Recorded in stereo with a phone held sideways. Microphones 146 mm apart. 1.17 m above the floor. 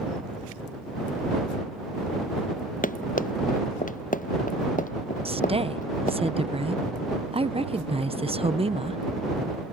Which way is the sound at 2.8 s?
70° left (ahead or behind).